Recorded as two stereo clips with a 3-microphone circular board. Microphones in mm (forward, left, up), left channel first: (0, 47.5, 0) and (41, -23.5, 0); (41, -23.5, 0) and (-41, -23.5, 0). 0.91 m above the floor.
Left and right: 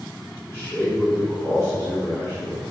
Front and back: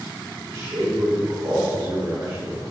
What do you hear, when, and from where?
0.5 s a man speaking: 175° left, 3 m